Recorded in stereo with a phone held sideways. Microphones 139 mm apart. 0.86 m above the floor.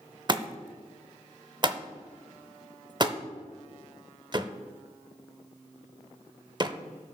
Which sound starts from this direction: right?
A thud, at 0.3 s.